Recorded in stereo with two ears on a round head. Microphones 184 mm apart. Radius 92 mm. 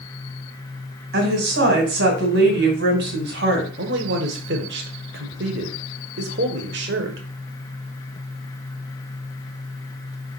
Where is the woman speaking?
60° right (ahead or behind), 2.5 m.